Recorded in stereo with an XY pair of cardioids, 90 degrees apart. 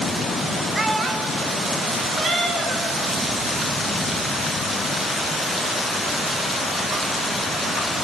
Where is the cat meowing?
50° right, 2.5 m.